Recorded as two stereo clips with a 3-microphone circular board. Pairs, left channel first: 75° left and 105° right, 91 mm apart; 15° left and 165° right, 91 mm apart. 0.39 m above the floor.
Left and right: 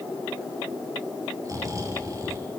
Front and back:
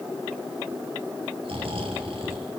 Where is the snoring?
155° right, 4.5 m.